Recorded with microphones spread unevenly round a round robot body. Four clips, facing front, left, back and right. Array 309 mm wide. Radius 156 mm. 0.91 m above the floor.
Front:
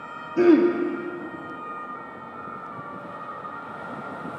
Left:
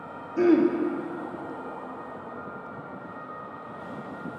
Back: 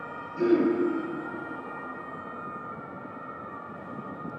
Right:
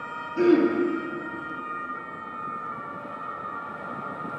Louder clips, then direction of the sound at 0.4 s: Right 1 dB, front 6 dB; 5° left.